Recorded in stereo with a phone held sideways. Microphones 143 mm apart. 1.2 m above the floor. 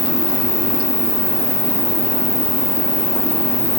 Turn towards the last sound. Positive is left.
turn(degrees=35)  # may be behind; listen again after turning